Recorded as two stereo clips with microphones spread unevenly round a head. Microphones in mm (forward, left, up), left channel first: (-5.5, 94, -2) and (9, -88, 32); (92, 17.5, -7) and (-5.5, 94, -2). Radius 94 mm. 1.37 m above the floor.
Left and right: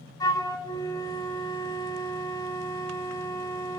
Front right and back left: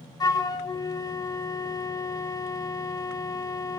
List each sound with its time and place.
0.2 s a flute: 20° left, 0.8 m